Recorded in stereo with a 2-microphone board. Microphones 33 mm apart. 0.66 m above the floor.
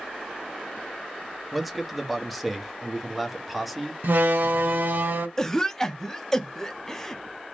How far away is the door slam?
About 0.9 m.